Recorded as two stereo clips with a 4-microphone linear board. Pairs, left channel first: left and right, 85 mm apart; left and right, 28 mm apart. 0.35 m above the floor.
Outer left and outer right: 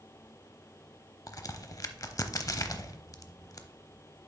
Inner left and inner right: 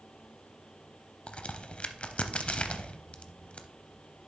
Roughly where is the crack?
Left.